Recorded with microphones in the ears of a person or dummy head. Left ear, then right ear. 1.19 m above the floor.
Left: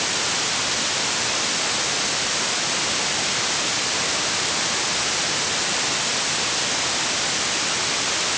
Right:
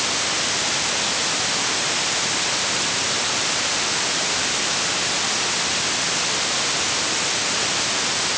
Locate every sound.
Only background noise.